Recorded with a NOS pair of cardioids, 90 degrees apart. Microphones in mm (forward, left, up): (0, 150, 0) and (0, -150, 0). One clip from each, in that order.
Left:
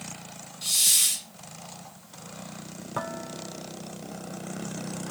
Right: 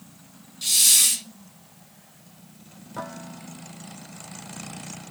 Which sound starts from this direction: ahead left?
Dishes clattering, at 3.0 s.